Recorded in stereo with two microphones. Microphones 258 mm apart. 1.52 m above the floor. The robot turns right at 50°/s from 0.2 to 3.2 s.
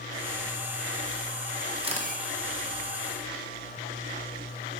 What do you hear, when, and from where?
1.8 s a camera shutter: 20° right (ahead or behind), 1.5 m; by 2.2 s 40° right (ahead or behind), 1.5 m